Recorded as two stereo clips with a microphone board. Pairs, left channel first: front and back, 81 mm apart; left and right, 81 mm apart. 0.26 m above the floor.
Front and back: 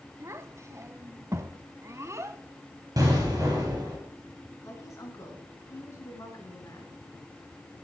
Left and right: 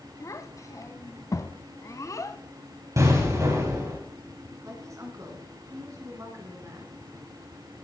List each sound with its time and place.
0.2 s a child speaking: 135° left, 1.0 m
3.0 s an explosion: 140° right, 6 m
4.6 s a woman speaking: 45° right, 3.5 m